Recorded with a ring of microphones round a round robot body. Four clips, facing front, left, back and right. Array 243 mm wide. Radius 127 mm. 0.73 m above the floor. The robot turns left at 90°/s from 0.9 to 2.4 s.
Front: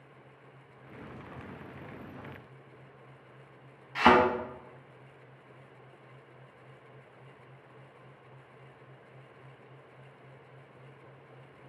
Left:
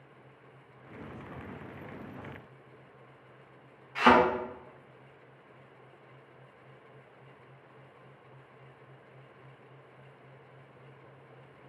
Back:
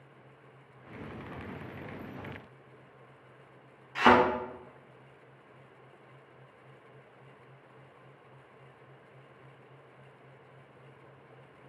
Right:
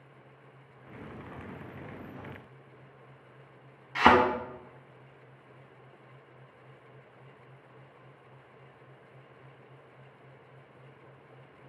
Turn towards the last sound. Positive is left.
turn(degrees=-75)